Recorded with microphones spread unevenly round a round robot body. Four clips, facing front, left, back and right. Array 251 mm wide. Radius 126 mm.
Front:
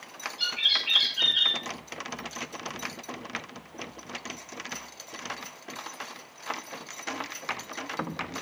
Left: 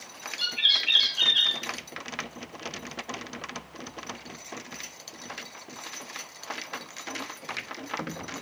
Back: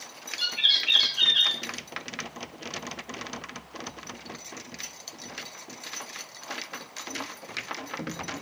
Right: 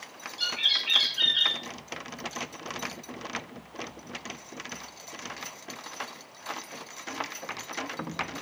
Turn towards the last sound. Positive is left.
turn(degrees=-110)